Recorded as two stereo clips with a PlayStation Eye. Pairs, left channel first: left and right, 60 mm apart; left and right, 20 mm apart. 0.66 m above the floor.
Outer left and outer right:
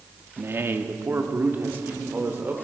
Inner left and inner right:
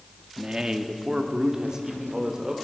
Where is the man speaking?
40° right (ahead or behind), 0.8 m; by 2.5 s 30° right (ahead or behind), 1.8 m.